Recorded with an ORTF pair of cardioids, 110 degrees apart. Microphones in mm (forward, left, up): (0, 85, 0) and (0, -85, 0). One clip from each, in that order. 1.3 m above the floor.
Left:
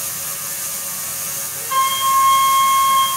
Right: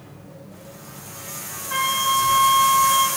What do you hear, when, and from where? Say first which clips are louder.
1.7 s a flute: left 5 dB; 35° left, 1.9 m